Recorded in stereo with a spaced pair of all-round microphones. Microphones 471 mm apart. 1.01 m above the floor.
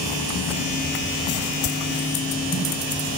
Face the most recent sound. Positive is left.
turn(degrees=-85)